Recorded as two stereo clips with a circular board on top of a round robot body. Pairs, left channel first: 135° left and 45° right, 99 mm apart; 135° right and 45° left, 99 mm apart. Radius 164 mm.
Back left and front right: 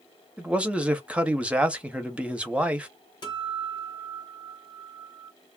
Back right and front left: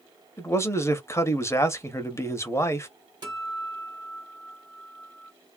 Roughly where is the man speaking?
Right.